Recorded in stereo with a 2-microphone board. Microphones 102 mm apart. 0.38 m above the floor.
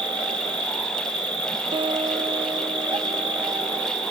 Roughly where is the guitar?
Right.